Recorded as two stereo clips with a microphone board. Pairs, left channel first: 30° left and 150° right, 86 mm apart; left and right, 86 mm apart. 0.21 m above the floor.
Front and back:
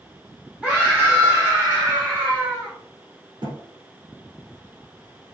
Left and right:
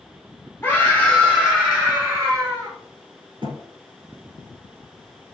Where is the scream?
130° left, 1.8 m; by 2.7 s 95° right, 2.5 m.